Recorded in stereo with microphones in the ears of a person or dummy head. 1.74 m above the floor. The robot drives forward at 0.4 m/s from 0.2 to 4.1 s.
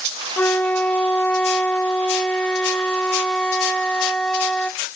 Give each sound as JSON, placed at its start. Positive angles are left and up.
{"t": 0.4, "sound": "a flute", "side_deg": 10}